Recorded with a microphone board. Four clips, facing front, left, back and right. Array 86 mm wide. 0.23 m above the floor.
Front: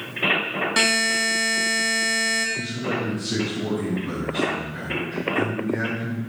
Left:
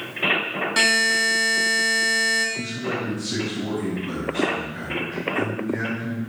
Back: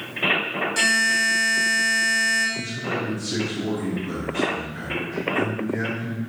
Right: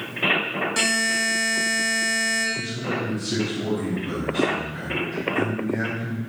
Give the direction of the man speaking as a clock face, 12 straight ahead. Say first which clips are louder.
Even, front 1 dB; 1 o'clock.